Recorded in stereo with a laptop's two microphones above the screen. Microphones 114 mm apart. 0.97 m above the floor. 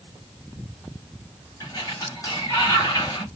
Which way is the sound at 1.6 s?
35° left (ahead or behind).